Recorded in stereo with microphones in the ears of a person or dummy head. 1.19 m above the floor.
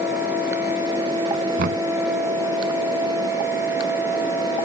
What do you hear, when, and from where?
1.6 s knocking: 50° right (ahead or behind)